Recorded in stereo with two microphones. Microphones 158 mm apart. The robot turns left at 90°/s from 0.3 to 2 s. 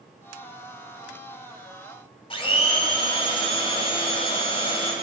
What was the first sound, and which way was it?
A blender, 35° left (ahead or behind).